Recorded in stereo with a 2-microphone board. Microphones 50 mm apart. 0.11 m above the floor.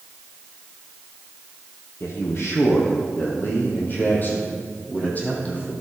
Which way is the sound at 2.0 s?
60° left (ahead or behind).